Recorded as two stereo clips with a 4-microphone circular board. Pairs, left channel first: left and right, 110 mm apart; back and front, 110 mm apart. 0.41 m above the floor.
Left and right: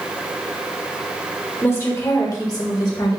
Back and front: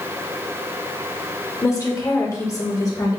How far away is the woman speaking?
About 1.2 m.